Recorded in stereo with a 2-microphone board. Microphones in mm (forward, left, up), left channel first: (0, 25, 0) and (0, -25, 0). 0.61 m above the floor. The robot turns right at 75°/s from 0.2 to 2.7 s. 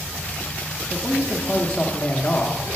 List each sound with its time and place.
0.9 s a man speaking: 5° right (ahead or behind), 0.7 m; by 2.6 s 25° left (ahead or behind), 0.7 m